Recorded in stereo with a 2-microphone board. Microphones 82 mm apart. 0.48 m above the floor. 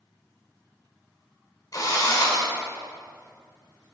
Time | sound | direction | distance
1.7 | a drill | 50° left (ahead or behind) | 1.8 m